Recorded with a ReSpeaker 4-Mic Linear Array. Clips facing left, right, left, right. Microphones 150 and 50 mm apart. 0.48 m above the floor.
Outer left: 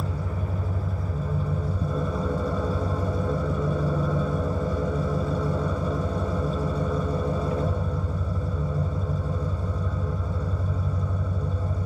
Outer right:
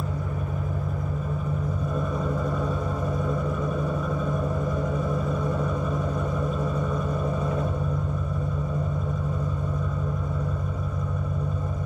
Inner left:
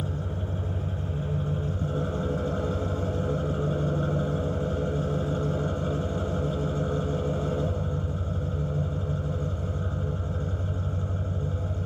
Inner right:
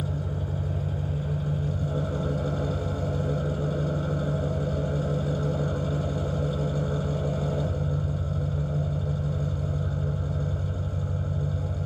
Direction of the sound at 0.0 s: 30° left (ahead or behind).